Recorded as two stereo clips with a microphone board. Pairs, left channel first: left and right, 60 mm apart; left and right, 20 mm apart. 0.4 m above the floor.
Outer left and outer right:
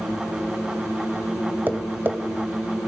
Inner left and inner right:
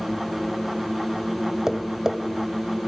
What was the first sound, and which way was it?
Tapping, 35° right (ahead or behind).